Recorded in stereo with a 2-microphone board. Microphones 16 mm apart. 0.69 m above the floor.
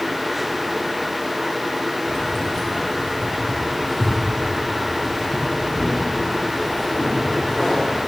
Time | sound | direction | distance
2.1 | keys jangling | 35° left (ahead or behind) | 4 m